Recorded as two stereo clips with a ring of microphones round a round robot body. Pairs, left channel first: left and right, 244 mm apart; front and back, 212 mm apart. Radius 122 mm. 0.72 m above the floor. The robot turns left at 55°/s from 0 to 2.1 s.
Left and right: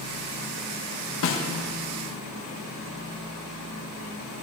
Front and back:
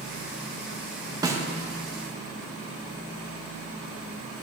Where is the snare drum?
110° left, 1.0 m; by 1.5 s 95° left, 1.0 m.